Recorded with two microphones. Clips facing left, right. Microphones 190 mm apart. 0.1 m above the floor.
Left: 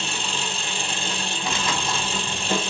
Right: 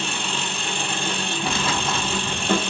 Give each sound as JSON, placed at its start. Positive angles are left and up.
{"t": 0.0, "sound": "an engine running", "side_deg": -60, "distance_m": 1.3}
{"t": 1.5, "sound": "tearing paper", "side_deg": -30, "distance_m": 1.2}